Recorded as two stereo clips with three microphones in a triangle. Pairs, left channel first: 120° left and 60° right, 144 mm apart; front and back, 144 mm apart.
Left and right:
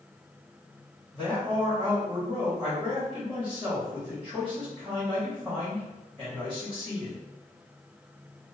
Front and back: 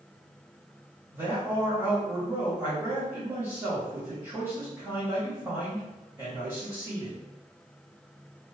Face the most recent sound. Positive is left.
turn(degrees=-135)